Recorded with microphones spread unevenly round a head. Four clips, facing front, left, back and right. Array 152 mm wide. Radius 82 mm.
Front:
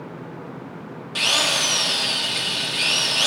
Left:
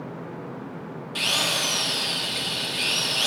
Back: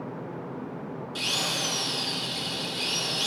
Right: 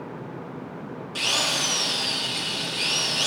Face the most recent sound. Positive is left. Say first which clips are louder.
# even, front 9 dB
turn(degrees=5)